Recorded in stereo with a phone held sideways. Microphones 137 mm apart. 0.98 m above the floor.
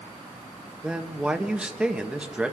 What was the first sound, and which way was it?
A man speaking, 5° right (ahead or behind).